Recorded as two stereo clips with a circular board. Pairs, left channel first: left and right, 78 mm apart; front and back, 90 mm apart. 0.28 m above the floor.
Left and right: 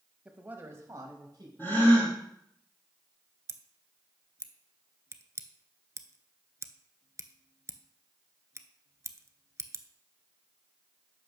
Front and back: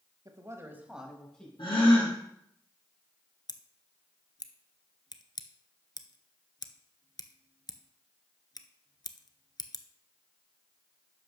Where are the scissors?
40° right, 0.6 m.